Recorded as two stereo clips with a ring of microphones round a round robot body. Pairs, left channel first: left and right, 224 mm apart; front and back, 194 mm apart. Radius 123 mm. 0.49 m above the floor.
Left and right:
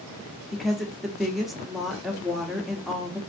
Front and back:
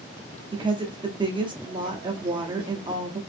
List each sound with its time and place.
0.5 s a woman speaking: straight behind, 0.8 m